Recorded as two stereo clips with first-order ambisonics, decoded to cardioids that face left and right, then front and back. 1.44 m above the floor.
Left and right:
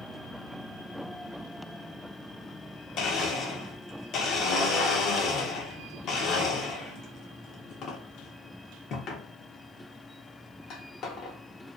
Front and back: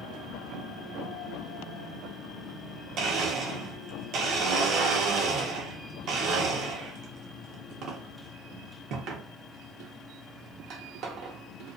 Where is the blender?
140° left, 0.6 m.